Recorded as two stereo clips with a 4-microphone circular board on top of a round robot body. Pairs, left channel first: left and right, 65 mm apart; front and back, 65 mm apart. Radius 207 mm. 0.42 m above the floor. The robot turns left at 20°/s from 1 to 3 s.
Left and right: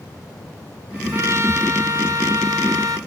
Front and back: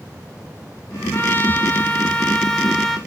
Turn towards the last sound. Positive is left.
turn(degrees=-90)